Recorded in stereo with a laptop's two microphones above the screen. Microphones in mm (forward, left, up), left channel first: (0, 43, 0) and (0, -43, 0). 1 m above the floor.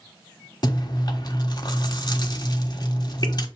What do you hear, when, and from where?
0.6 s chewing: 55° left (ahead or behind), 1.2 m